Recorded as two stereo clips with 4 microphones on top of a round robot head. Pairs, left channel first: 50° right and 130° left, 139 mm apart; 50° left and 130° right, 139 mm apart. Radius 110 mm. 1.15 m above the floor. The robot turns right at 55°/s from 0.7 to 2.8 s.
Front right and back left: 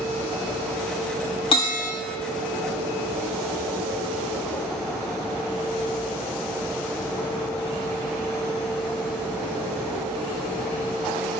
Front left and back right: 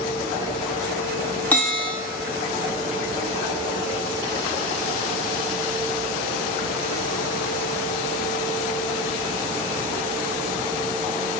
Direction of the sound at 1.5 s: 20° right.